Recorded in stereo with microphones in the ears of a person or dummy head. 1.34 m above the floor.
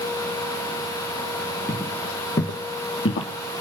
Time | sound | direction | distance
1.7 | footsteps | 5° left (ahead or behind) | 2.5 m